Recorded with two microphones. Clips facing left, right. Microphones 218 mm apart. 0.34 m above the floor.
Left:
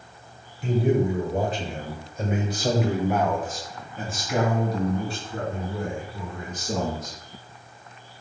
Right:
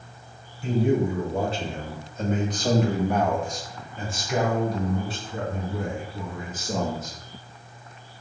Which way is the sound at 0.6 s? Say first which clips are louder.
Even; 20° left (ahead or behind).